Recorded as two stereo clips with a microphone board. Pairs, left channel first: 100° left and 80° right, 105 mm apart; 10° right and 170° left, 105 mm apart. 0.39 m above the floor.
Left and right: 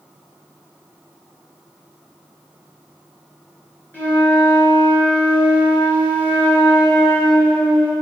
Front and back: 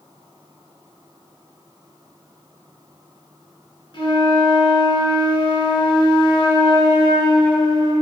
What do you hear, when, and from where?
3.9 s a flute: 30° left, 3.5 m